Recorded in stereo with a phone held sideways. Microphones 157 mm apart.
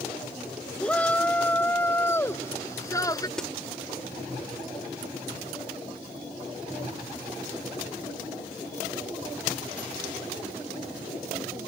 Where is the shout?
10° left (ahead or behind); by 3.3 s 25° left (ahead or behind).